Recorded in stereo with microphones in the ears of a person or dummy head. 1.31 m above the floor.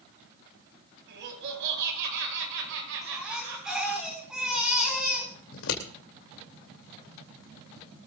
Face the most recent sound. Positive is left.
turn(degrees=75)  # may be behind; listen again after turning